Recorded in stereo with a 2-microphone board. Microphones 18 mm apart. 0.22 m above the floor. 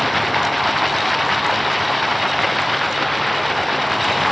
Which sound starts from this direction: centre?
Running water, at 0.0 s.